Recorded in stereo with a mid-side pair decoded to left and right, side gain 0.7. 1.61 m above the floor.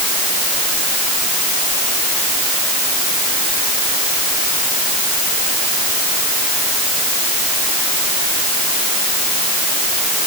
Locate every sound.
Only background noise.